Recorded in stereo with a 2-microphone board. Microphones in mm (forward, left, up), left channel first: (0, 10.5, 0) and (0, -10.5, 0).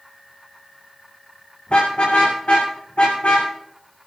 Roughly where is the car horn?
Left.